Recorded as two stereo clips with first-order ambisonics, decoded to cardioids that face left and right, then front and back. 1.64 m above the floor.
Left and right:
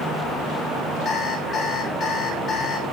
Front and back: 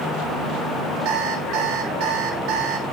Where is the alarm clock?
155° left, 3.5 m.